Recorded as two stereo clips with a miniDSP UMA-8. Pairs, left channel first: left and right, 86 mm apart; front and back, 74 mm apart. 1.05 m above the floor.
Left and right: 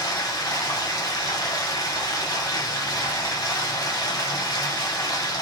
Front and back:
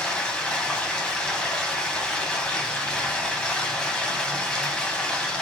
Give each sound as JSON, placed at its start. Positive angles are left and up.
{"t": 0.0, "sound": "running water", "azimuth_deg": 75, "distance_m": 1.2}